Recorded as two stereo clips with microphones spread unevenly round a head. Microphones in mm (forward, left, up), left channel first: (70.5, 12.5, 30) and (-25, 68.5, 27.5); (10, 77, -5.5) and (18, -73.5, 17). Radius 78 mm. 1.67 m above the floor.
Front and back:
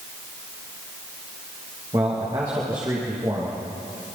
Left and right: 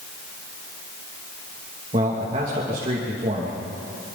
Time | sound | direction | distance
1.9 | a man speaking | 145° right | 3 m